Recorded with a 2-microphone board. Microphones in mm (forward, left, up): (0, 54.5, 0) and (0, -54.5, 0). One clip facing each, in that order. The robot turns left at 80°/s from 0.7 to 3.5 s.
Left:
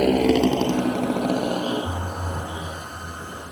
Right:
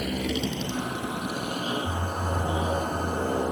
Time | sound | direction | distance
0.0 | a motorcycle | 70° left (ahead or behind) | ?